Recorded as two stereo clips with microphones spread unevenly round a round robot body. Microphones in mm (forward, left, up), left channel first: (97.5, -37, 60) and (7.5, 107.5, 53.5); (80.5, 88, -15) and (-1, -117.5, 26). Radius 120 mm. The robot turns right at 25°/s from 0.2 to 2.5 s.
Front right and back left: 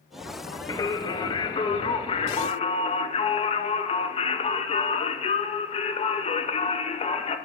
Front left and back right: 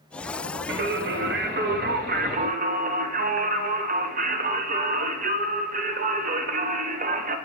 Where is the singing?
115° right, 0.6 m; by 7.4 s 70° right, 0.6 m.